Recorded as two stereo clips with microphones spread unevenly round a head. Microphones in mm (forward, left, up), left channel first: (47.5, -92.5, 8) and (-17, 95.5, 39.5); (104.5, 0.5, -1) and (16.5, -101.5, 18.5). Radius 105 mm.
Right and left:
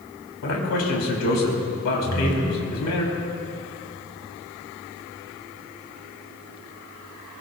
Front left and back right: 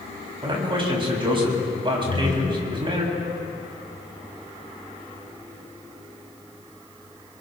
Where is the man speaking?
80° right, 5 m.